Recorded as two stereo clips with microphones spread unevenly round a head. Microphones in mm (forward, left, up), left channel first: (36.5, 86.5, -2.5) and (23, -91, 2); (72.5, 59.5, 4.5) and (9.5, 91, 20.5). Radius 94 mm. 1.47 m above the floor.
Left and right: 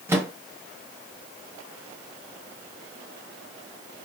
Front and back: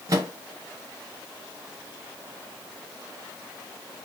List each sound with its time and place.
0.1 s a microwave: 170° right, 0.8 m